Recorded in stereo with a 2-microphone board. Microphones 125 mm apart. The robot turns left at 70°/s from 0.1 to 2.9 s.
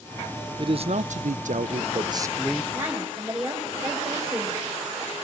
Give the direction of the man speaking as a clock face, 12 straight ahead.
1 o'clock.